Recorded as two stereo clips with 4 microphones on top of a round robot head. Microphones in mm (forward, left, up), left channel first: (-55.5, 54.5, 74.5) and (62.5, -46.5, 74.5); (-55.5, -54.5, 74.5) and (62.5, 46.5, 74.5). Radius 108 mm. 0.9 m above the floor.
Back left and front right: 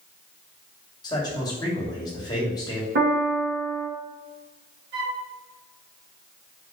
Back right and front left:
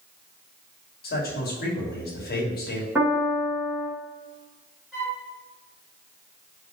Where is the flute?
40° right, 3 m.